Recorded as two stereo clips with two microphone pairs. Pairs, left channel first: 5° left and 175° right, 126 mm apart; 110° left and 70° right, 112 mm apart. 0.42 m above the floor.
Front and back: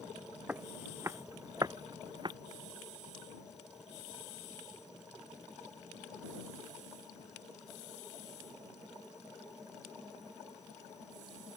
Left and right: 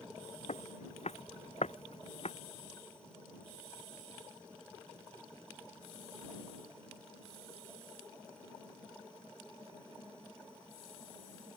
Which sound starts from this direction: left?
Footsteps, at 0.5 s.